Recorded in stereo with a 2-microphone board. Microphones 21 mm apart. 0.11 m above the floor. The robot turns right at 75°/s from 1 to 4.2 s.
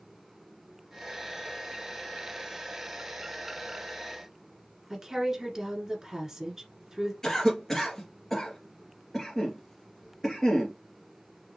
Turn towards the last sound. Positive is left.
turn(degrees=15)  # may be behind; listen again after turning